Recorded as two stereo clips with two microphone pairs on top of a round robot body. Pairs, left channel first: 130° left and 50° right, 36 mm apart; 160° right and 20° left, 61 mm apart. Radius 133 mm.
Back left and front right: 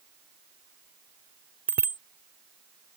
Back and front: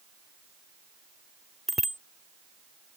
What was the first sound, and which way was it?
A bicycle bell, 70° right.